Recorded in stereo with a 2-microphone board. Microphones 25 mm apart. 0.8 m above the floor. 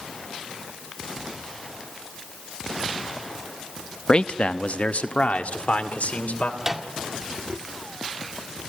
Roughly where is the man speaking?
Left.